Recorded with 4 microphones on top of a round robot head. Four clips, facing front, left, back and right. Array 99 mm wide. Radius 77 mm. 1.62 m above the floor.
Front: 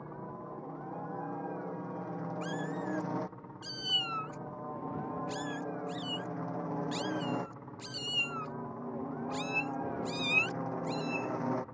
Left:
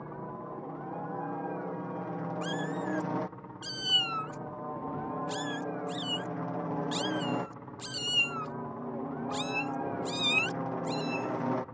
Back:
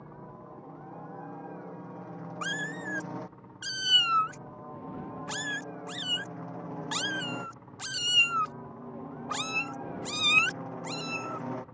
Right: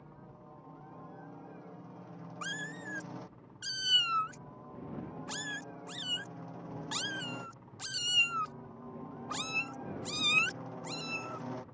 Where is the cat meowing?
170° right.